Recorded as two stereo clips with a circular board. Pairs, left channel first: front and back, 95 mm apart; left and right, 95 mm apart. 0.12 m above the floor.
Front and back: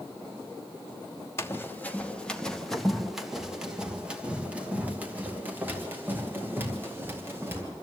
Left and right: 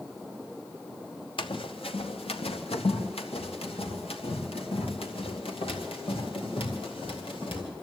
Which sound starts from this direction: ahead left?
Running footsteps, at 1.4 s.